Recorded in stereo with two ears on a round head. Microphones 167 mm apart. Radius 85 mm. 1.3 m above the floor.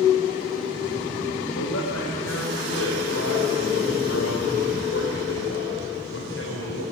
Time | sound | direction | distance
1.5 | a man speaking | 80° left | 5 m